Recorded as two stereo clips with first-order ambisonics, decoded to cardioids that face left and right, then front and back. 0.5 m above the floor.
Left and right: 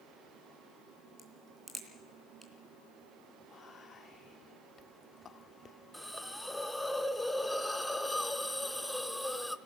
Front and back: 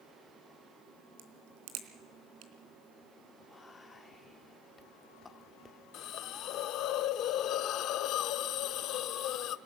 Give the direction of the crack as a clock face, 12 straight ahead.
6 o'clock.